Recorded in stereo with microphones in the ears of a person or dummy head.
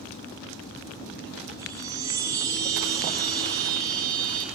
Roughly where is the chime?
Centre.